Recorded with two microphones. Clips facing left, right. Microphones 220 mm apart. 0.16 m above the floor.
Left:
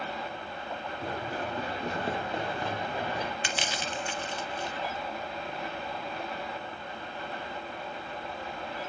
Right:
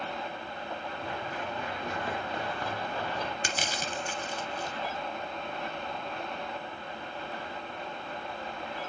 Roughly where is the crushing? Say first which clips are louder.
Even; right.